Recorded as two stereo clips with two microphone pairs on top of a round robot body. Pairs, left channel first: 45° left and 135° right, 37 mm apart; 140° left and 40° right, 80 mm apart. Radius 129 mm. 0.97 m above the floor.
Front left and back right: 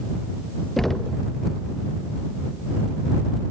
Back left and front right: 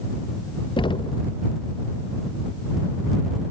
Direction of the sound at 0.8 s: 130° left.